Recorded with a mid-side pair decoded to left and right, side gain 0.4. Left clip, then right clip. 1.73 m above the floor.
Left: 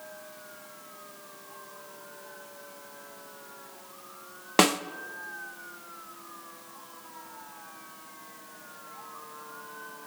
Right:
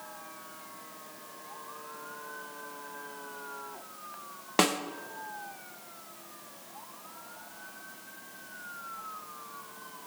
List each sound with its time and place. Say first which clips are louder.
4.6 s a snare drum: left 4 dB; 35° left, 0.7 m